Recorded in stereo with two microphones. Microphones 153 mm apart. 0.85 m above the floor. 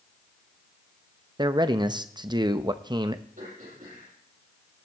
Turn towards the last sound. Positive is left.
turn(degrees=-65)  # may be behind; listen again after turning